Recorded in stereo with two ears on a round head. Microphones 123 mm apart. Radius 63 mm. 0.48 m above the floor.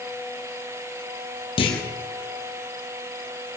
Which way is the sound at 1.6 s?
35° left (ahead or behind).